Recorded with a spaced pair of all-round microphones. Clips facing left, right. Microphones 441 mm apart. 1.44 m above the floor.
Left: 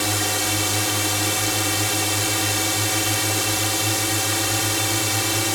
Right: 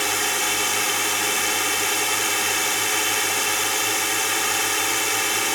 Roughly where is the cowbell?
No cowbell in this recording.